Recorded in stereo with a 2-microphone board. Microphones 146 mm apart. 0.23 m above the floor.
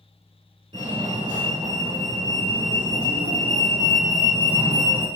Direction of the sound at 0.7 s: 40° right (ahead or behind).